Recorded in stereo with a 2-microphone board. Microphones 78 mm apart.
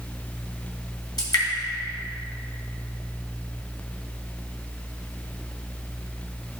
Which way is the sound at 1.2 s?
60° left (ahead or behind).